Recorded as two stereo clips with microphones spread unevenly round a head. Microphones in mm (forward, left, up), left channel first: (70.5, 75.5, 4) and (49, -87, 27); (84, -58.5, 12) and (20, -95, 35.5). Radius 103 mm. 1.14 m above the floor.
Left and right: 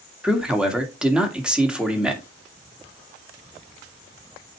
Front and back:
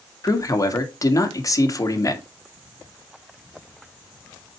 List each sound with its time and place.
0.2 s a man speaking: 10° right, 2.0 m